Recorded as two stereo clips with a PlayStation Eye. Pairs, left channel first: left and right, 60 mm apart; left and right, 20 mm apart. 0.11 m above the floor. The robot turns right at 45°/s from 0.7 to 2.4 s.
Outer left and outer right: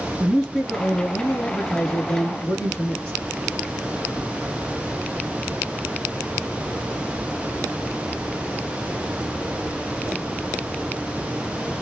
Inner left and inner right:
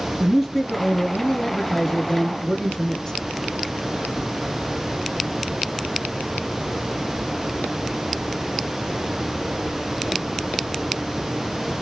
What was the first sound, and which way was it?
A man speaking, 10° right (ahead or behind).